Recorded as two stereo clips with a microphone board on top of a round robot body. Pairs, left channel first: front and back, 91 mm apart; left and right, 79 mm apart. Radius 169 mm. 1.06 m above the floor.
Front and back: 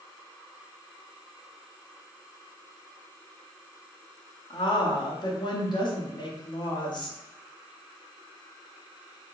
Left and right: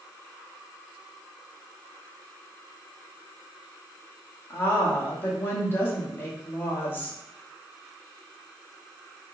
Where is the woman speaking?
30° left, 1.4 m.